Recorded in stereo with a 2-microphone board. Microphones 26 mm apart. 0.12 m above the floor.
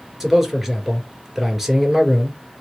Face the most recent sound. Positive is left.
turn(degrees=-10)  # may be behind; listen again after turning